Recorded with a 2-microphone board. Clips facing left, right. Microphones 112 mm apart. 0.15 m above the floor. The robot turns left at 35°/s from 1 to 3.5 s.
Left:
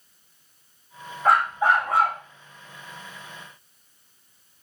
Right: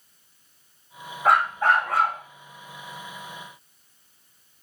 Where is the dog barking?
Straight behind, 4 m; by 2.2 s 150° left, 4 m.